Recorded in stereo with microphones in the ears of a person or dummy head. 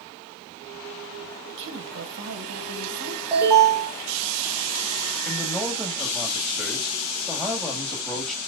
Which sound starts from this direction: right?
A woman speaking, at 1.5 s.